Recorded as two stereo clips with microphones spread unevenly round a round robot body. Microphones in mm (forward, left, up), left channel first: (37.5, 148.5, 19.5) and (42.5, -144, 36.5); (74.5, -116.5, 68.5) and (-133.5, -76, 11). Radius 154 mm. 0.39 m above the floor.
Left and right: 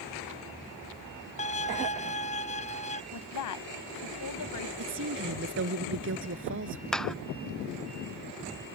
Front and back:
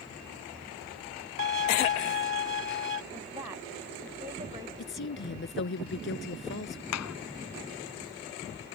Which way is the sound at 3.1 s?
100° left.